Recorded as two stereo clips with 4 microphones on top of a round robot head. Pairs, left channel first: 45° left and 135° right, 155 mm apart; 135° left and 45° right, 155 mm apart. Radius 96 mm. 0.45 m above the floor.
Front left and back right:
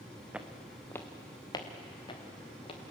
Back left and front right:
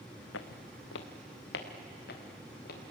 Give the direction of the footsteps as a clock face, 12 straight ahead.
7 o'clock.